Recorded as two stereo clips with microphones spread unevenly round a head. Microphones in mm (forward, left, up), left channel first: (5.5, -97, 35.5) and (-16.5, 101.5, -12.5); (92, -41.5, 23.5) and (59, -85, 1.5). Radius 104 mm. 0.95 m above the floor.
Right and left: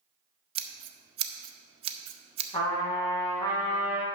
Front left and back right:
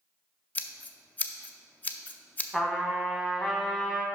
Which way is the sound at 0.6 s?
25° left.